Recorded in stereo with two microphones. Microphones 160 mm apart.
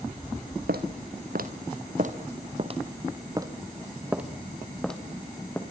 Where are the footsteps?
75° right (ahead or behind), 3 m; by 5.6 s 10° left (ahead or behind), 3.5 m.